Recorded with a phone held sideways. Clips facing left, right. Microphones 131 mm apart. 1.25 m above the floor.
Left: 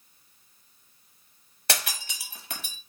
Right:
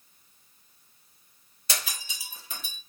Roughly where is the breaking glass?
Left.